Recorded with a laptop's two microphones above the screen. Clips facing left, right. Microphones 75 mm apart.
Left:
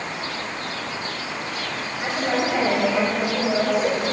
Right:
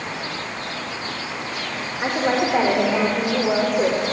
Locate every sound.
2.0 s a woman speaking: 45° right (ahead or behind), 4 m